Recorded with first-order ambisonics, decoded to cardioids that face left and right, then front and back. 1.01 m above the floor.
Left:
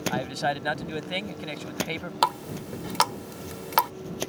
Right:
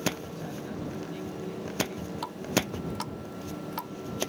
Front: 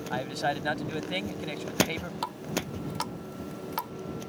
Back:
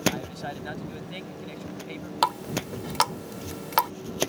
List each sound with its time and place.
0.1 s a man speaking: 65° left
2.2 s a running tap: 130° left